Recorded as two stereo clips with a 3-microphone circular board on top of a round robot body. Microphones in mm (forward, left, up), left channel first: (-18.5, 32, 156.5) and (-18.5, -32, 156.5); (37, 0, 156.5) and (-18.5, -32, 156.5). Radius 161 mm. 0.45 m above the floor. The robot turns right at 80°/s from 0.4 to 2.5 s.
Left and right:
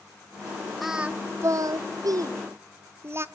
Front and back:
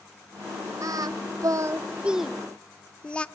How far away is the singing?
About 1.0 m.